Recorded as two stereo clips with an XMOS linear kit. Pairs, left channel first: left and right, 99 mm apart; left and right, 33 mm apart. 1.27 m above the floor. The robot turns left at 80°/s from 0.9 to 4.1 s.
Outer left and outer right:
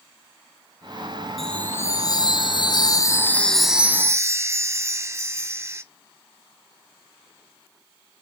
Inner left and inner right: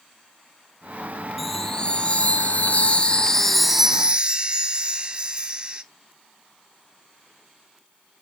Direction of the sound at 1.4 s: Straight behind.